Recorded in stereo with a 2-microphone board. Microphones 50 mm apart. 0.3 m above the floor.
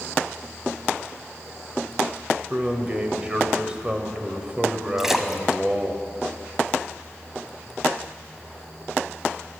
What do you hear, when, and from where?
2.5 s a man speaking: 25° right (ahead or behind), 1.3 m
5.0 s a splash: 10° right (ahead or behind), 1.0 m